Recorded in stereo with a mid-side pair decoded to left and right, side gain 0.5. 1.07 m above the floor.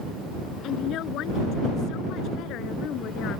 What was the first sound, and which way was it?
A woman speaking, 70° left.